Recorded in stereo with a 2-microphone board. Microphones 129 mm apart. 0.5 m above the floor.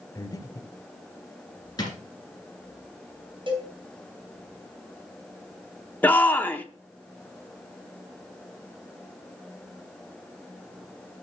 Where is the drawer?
30° left (ahead or behind), 2.5 m.